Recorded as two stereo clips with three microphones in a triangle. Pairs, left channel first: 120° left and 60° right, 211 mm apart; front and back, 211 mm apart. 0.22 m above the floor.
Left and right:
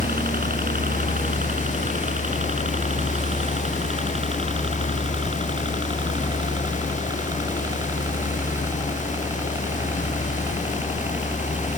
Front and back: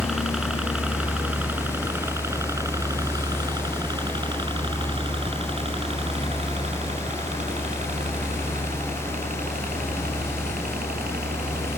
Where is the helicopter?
90° right; by 11.8 s 140° right.